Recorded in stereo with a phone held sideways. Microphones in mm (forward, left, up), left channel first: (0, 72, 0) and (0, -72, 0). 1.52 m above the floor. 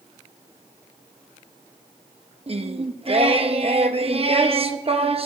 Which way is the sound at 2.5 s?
45° right (ahead or behind).